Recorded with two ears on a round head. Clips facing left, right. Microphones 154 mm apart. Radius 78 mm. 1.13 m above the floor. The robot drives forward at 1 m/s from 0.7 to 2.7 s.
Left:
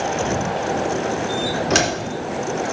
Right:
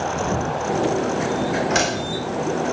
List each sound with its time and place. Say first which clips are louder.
1.7 s a door slam: left 2 dB; 70° left (ahead or behind), 2.5 m; by 1.9 s 65° left (ahead or behind), 3 m